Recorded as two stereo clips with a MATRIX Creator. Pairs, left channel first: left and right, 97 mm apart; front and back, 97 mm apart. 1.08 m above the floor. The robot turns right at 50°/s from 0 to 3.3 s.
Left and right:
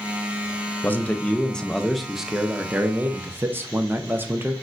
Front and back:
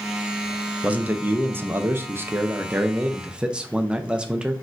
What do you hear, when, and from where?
0.8 s a man speaking: 120° left, 0.5 m; by 4.5 s 115° right, 0.5 m